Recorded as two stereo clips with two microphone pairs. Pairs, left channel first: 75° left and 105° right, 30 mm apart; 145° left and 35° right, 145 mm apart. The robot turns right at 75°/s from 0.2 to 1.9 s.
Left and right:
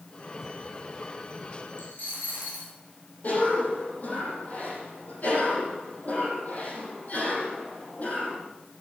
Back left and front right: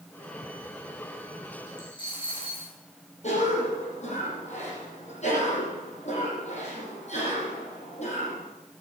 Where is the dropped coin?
80° left, 5 m; by 2.7 s 85° left, 5 m.